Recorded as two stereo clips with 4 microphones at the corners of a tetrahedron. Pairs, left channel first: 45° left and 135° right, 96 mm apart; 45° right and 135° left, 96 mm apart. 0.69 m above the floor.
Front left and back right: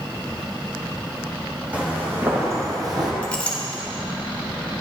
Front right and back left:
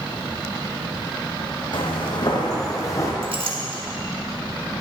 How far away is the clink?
About 1.1 m.